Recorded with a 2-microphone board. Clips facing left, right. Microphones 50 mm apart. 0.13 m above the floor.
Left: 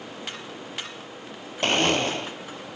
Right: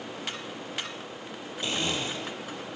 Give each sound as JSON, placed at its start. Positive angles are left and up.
{"t": 1.6, "sound": "a blender", "side_deg": 65, "distance_m": 1.2}